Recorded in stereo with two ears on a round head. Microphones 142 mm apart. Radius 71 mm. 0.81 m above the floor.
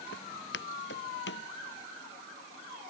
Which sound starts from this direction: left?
Footsteps, at 0.1 s.